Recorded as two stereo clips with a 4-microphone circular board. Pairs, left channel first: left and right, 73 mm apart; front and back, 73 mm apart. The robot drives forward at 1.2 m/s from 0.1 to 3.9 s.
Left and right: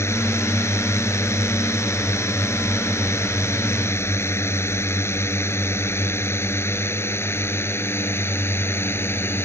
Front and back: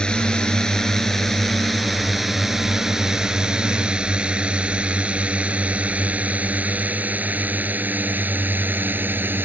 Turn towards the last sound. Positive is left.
turn(degrees=130)